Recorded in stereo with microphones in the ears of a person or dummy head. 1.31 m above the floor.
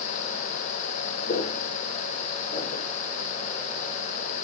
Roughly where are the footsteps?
Left.